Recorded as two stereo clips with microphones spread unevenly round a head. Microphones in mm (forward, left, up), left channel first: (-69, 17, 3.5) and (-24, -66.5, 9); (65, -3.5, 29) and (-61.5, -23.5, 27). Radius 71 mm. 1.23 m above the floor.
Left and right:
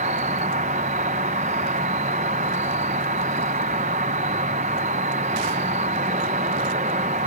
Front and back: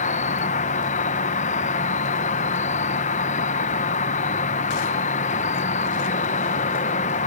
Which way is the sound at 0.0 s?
25° right.